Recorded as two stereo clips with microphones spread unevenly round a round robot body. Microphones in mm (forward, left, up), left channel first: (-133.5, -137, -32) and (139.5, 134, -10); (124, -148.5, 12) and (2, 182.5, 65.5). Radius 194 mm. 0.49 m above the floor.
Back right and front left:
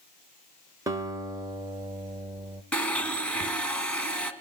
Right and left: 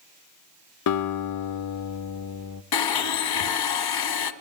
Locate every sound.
0.9 s a guitar: 40° right, 0.8 m
2.7 s a blender: 50° right, 1.5 m